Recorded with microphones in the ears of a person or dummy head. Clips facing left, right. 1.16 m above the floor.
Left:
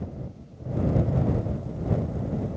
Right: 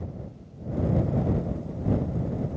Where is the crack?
I don't hear a crack.